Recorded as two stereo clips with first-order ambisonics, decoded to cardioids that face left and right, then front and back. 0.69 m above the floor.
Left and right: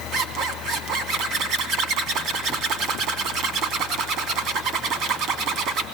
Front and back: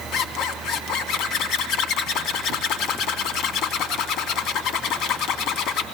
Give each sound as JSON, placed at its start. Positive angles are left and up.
{"t": 0.1, "sound": "a zipper", "azimuth_deg": -45, "distance_m": 3.0}